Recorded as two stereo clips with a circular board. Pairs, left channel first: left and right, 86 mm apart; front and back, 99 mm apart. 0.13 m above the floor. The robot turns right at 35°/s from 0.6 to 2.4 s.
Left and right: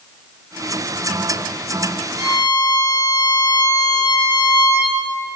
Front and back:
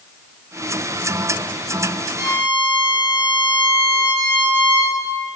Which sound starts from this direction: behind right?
A violin, at 2.2 s.